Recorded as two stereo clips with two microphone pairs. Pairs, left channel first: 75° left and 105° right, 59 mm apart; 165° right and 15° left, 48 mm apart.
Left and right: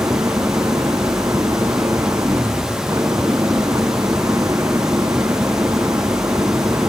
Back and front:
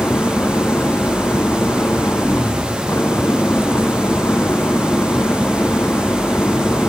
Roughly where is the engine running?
Behind right.